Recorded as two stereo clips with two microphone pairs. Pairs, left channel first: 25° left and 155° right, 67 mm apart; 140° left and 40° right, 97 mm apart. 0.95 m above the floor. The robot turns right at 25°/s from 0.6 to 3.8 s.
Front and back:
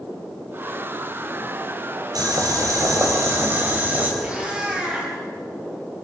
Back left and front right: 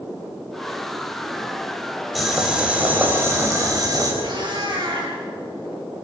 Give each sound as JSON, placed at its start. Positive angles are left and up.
{"t": 2.1, "sound": "boiling", "azimuth_deg": -130, "distance_m": 5.5}
{"t": 4.2, "sound": "a cat meowing", "azimuth_deg": -80, "distance_m": 7.0}